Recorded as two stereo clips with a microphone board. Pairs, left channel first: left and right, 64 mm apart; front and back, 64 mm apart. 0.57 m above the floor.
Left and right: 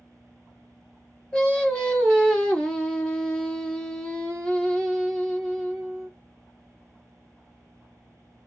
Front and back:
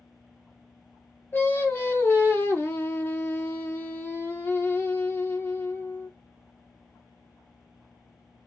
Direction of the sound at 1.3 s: 25° left.